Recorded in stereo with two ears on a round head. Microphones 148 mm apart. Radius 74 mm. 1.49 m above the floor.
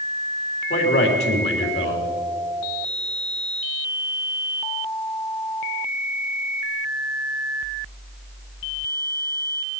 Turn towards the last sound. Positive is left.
turn(degrees=70)  # may be behind; listen again after turning